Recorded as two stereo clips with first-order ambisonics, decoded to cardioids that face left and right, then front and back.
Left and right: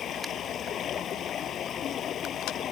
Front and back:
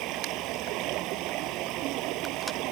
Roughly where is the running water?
Behind left.